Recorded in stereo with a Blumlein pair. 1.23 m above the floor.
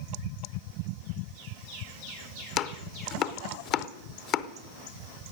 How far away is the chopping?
About 0.7 m.